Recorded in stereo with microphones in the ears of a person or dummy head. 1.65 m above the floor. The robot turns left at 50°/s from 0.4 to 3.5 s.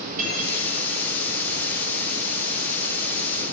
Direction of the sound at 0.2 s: 45° right (ahead or behind).